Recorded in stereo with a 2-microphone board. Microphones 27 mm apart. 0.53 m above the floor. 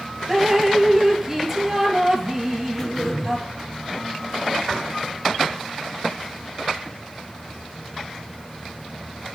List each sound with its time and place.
0.3 s dripping: 20° right (ahead or behind), 2.0 m
2.8 s throat clearing: 10° left (ahead or behind), 6.5 m